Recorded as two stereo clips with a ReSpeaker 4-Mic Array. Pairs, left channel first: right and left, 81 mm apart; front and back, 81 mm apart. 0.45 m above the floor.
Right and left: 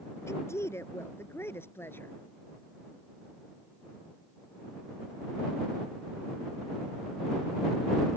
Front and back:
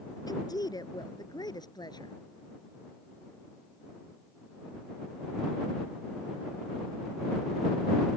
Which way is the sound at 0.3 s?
35° right.